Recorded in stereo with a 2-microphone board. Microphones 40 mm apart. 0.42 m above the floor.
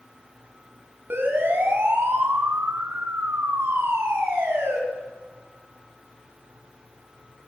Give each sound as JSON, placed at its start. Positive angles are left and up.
{"t": 1.1, "sound": "a siren", "side_deg": -60, "distance_m": 6.0}